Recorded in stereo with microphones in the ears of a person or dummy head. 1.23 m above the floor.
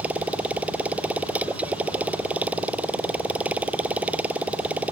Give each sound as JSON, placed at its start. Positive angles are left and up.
{"t": 0.0, "sound": "a motorcycle", "side_deg": -10}